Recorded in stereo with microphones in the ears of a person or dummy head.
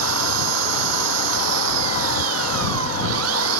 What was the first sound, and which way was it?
An engine running, 80° right.